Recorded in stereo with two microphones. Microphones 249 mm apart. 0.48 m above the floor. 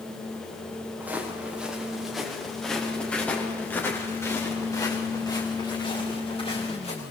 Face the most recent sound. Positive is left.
turn(degrees=25)  # may be behind; listen again after turning